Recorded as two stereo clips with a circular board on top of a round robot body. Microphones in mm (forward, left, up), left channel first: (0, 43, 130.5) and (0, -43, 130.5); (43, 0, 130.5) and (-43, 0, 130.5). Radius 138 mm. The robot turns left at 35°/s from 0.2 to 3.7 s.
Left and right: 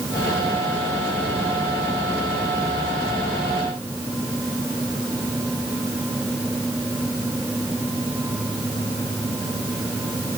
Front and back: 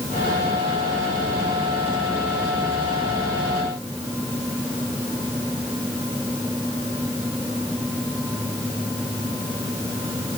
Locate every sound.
Only background noise.